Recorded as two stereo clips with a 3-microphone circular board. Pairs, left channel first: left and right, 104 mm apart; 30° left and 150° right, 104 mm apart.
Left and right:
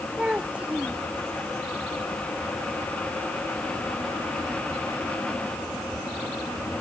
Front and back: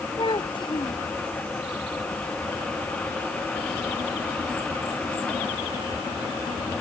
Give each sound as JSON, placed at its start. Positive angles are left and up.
{"t": 0.2, "sound": "a child speaking", "azimuth_deg": -10}